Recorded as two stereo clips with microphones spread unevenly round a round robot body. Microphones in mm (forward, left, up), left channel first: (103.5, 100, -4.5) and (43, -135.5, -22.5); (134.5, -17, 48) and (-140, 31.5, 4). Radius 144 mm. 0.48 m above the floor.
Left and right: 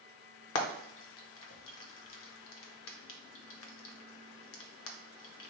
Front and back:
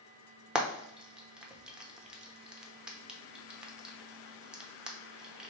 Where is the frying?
90° left, 0.7 m.